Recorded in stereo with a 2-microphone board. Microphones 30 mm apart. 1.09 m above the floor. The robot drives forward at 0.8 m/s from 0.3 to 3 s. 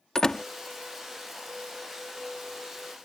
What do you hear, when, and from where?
0.1 s a door slam: 25° left (ahead or behind); by 0.5 s 30° left (ahead or behind)